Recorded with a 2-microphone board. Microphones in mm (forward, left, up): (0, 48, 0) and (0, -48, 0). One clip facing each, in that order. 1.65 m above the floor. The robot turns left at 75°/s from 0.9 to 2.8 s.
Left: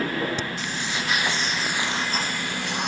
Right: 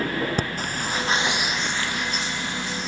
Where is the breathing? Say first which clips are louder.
Right 2 dB; 45° right (ahead or behind); by 2.9 s 65° left (ahead or behind).